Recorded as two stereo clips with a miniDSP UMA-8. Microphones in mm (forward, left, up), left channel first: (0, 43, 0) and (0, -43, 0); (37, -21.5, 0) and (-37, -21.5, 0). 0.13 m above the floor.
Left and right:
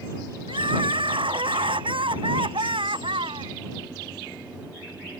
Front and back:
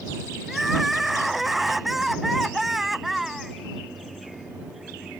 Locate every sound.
0.5 s crying: 90° right